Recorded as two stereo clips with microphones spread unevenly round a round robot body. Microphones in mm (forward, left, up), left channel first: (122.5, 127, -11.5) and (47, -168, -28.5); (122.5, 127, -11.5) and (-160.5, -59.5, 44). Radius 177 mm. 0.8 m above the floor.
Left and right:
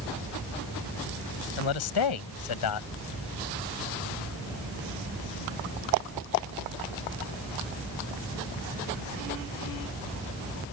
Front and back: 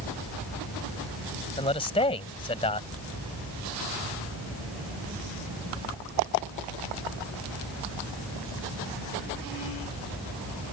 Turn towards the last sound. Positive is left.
turn(degrees=105)